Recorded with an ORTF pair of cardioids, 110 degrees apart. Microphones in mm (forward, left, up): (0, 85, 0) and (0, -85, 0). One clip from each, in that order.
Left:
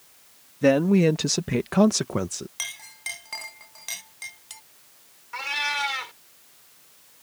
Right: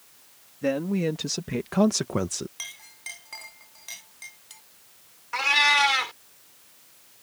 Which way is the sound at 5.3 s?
40° right.